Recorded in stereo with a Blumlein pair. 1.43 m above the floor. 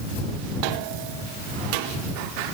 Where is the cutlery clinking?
I don't hear cutlery clinking.